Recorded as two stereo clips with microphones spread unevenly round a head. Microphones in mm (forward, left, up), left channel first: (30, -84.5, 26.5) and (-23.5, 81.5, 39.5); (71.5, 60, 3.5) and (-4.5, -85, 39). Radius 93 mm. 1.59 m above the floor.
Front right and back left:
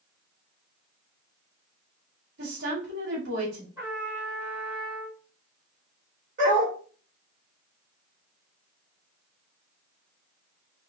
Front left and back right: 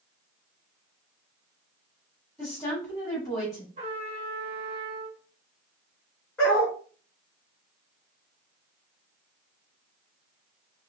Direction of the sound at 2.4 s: 135° left.